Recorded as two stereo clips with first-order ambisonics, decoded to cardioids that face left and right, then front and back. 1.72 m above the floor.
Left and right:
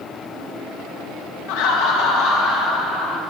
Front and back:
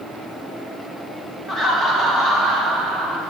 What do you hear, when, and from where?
1.5 s laughter: 95° left, 1.4 m; by 3.2 s 120° left, 3.5 m